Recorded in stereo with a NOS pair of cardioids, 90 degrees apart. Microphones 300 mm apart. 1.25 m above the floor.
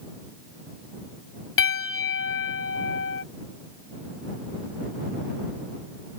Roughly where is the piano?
Ahead left.